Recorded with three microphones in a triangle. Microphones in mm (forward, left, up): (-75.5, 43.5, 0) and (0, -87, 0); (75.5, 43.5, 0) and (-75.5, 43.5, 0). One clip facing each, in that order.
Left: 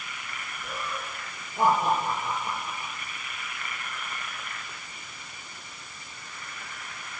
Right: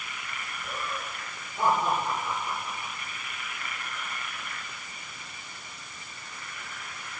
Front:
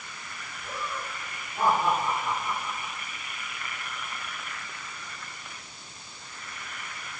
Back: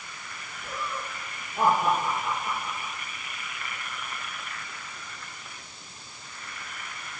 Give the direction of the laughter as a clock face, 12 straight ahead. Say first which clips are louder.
Left 1 dB, back 1 dB; 8 o'clock.